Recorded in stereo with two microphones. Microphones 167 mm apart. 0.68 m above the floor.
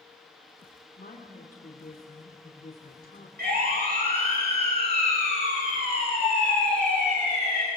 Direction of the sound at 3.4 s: 65° right (ahead or behind).